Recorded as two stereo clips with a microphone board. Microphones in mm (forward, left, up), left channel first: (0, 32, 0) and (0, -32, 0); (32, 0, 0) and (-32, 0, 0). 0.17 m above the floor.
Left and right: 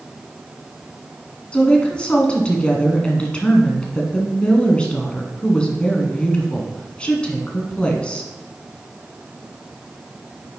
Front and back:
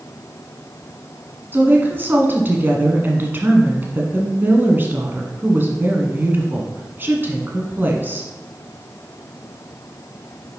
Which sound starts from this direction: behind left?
A woman speaking, at 1.5 s.